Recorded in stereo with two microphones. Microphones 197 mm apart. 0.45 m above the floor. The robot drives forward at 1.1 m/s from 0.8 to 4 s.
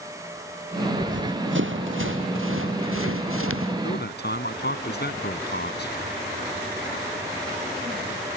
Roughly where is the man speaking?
Left.